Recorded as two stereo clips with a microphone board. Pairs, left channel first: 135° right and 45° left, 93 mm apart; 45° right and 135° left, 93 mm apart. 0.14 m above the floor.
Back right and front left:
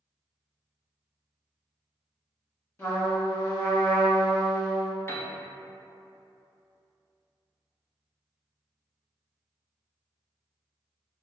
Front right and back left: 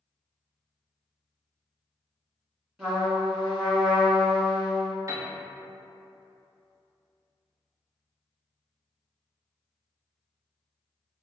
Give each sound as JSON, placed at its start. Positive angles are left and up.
{"t": 2.8, "sound": "a trumpet", "azimuth_deg": -160, "distance_m": 1.8}
{"t": 5.1, "sound": "a piano", "azimuth_deg": 170, "distance_m": 0.7}